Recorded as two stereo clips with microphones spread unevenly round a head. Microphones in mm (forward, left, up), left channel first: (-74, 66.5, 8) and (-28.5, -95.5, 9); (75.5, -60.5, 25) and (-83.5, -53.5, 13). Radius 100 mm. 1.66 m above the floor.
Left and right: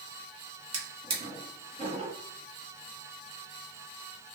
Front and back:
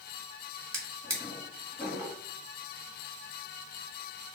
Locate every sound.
0.7 s a drawer: 110° right, 1.6 m